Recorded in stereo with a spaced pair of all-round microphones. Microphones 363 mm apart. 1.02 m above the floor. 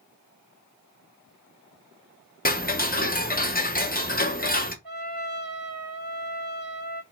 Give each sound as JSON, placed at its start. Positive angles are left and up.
{"t": 2.5, "sound": "ticking", "side_deg": 25, "distance_m": 0.8}
{"t": 4.8, "sound": "a trumpet", "side_deg": -80, "distance_m": 1.7}